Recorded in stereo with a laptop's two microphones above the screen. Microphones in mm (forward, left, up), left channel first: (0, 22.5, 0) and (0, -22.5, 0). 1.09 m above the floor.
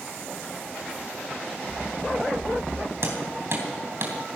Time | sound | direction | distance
1.7 | running footsteps | 30° right (ahead or behind) | 4.5 m
3.0 | hammering | 55° right (ahead or behind) | 3 m